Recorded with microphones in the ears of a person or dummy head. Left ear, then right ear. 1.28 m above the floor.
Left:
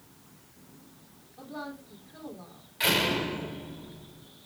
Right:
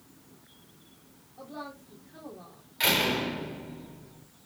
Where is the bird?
No bird in this recording.